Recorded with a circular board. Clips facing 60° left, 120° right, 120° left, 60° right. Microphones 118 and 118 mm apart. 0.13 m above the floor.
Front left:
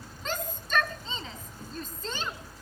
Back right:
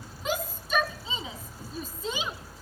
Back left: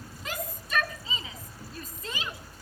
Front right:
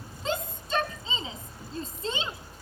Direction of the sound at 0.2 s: 50° right.